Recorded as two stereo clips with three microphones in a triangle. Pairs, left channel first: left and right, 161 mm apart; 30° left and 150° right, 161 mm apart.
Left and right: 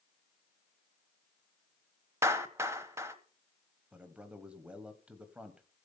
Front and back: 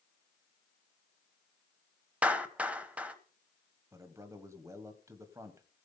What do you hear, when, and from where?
2.2 s a clap: 90° right, 1.0 m
3.9 s a man speaking: 155° right, 1.2 m